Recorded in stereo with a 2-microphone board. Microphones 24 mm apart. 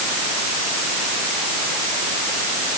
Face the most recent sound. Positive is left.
No sound to turn to.